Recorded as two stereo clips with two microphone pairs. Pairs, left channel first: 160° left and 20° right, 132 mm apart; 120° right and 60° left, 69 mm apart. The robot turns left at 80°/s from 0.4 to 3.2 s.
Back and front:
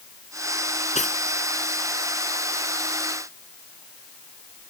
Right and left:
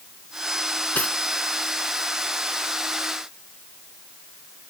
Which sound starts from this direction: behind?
Cutlery clinking, at 0.9 s.